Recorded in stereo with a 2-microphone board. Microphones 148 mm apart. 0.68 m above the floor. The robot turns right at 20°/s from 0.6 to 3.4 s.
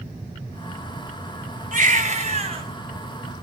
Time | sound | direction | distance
1.7 | a baby crying | 60° right (ahead or behind) | 4 m